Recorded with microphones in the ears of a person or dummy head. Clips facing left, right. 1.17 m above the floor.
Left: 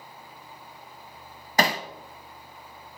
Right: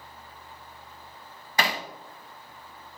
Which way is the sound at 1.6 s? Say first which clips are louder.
Left 4 dB; 45° left (ahead or behind).